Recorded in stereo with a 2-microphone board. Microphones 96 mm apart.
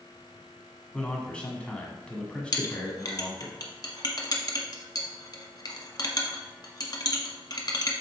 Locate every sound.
0.9 s a man speaking: 15° left (ahead or behind), 1.4 m
2.5 s a clink: 45° left (ahead or behind), 0.9 m